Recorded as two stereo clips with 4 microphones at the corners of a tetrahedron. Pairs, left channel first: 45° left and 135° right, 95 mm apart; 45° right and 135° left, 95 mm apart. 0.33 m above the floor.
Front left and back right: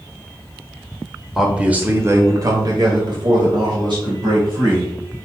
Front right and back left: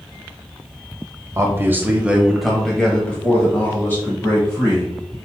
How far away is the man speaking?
About 1.1 m.